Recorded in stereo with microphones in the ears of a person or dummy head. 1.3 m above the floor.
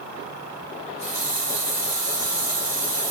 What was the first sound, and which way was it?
A running tap, 15° left (ahead or behind).